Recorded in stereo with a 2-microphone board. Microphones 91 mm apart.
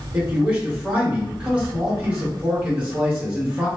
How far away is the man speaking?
About 1.5 m.